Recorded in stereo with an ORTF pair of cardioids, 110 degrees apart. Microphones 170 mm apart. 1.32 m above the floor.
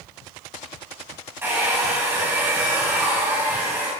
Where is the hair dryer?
15° right, 4.5 m.